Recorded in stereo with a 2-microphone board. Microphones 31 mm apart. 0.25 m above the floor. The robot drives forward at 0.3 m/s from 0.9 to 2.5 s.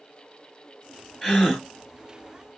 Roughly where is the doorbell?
I don't hear a doorbell.